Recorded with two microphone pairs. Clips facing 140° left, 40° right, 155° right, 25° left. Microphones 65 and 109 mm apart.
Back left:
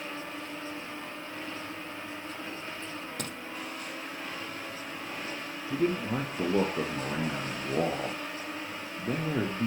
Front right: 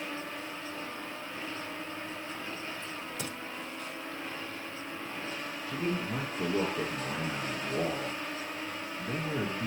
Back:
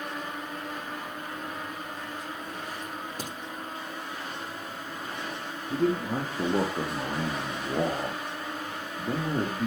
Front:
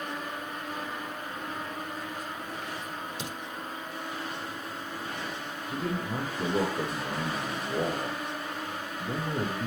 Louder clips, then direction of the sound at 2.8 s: Back left 1 dB, back 1 dB; 165° left.